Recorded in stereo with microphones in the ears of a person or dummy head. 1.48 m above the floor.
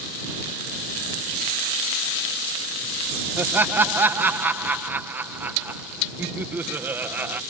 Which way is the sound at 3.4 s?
15° right (ahead or behind).